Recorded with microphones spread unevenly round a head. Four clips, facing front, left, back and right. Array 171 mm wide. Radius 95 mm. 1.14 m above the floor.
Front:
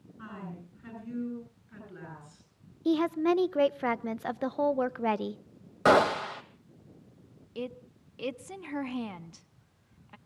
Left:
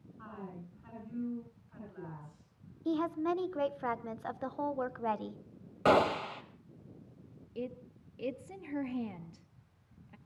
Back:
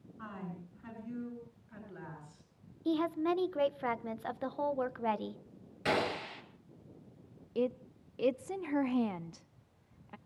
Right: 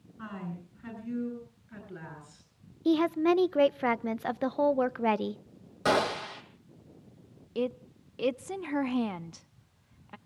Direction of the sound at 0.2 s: 85° right.